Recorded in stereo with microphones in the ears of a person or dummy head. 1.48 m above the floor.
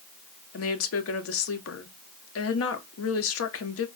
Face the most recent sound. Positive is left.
turn(degrees=65)  # may be behind; listen again after turning